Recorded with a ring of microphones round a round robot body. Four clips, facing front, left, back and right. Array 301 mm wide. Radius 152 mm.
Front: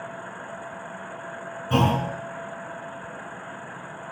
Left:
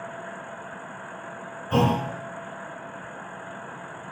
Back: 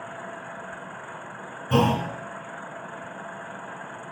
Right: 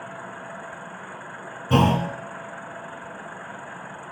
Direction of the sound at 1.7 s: 90° right.